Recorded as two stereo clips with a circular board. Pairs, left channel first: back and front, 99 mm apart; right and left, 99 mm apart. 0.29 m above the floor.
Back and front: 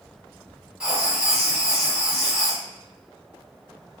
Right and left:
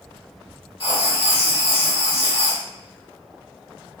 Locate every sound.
0.8 s writing: 80° right, 0.7 m